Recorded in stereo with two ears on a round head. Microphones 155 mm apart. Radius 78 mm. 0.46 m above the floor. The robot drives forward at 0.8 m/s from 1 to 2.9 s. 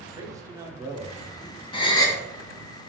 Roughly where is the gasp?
Left.